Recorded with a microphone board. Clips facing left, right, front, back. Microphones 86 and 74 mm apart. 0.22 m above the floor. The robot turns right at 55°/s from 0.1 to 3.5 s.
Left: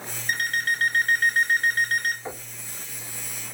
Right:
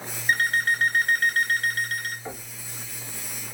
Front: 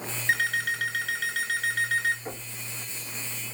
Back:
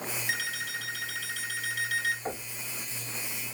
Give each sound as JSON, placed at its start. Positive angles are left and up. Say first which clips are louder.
{"t": 0.3, "sound": "an alarm clock", "louder": "right 3 dB, front 10 dB", "azimuth_deg": -50, "distance_m": 1.7}
{"t": 2.2, "sound": "knocking", "louder": "left 1 dB, back 2 dB", "azimuth_deg": 155, "distance_m": 1.3}